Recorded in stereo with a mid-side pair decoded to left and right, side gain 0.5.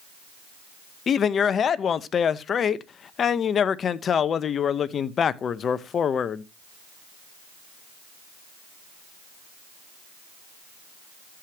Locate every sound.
1.1 s a man speaking: 45° left, 0.9 m